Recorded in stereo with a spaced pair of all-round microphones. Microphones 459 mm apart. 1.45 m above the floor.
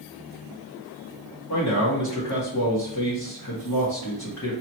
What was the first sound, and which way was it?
A man speaking, 35° left (ahead or behind).